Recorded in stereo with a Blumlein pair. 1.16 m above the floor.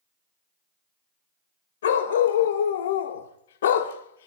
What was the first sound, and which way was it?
A dog barking, 60° left.